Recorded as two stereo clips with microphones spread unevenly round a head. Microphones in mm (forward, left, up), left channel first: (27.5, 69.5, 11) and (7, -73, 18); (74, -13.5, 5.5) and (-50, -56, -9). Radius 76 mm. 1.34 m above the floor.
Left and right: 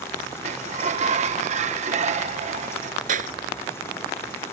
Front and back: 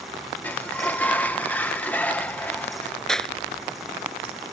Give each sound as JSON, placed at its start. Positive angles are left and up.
{"t": 0.4, "sound": "a sliding door", "azimuth_deg": -60}
{"t": 3.1, "sound": "a clap", "azimuth_deg": -65}